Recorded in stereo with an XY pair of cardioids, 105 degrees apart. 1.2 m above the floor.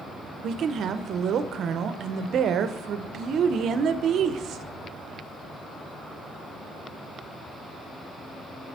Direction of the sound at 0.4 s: 60° right.